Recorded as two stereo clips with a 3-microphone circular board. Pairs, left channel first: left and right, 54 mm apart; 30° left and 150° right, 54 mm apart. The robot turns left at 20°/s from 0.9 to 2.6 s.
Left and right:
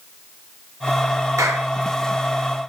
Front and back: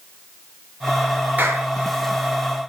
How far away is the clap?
About 4 m.